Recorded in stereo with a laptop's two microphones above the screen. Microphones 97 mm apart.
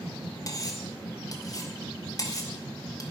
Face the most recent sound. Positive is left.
turn(degrees=40)  # may be behind; listen again after turning